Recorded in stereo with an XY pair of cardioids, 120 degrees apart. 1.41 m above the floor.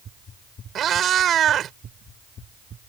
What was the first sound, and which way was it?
A cat meowing, 55° right.